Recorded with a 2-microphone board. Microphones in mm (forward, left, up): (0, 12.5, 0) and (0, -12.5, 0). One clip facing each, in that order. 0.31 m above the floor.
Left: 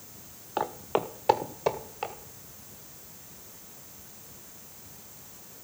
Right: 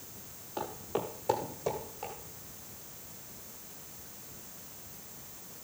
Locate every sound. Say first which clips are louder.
0.6 s footsteps: left 7 dB; 70° left (ahead or behind), 0.9 m; by 2.1 s 80° left, 2.5 m